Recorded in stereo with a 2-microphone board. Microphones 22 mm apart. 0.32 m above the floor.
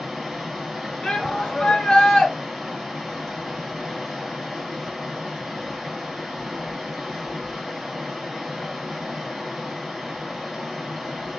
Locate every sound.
0.0 s running water: 5° right (ahead or behind), 2 m
1.0 s a shout: 35° left (ahead or behind), 1.5 m